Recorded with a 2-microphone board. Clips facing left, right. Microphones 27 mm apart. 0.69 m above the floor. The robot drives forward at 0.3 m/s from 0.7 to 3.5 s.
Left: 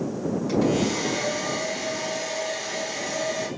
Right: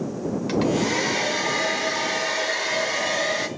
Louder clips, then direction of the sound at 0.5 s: Right 1 dB; 45° right (ahead or behind).